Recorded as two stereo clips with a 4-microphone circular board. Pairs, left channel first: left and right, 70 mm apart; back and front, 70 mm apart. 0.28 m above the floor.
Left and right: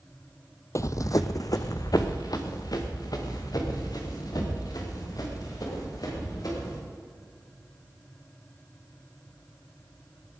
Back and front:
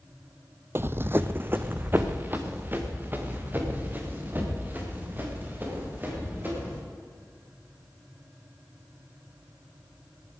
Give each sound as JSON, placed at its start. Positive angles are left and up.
{"t": 0.8, "sound": "running footsteps", "azimuth_deg": 50, "distance_m": 0.5}